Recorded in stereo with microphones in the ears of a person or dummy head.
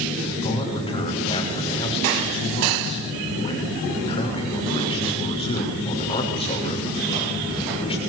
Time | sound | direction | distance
0.4 | a man speaking | 25° left (ahead or behind) | 6.5 m